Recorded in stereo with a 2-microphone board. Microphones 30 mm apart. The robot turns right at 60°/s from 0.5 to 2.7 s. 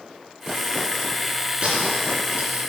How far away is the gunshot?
About 2.5 m.